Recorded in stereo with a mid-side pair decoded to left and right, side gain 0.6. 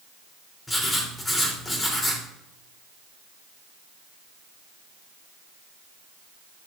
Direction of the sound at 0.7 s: 15° left.